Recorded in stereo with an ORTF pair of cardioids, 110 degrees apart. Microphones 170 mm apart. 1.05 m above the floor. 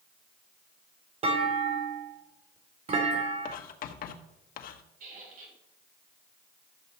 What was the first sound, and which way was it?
A clunk, 40° right.